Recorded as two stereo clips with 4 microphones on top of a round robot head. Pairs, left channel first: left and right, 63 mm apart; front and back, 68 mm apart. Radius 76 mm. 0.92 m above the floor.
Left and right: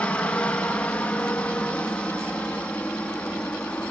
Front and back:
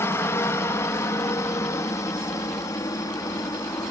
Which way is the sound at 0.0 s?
25° left.